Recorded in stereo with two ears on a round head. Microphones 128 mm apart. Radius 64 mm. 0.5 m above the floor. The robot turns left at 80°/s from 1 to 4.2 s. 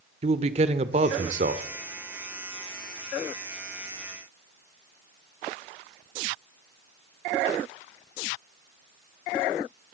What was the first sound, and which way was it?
A man speaking, 60° right.